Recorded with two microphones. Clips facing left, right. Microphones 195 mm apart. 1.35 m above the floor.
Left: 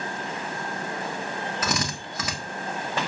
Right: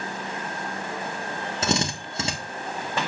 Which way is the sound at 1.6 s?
25° right (ahead or behind).